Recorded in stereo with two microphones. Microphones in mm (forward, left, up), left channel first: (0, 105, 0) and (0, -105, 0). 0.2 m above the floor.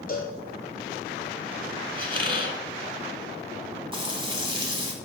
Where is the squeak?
25° right (ahead or behind), 1.1 m.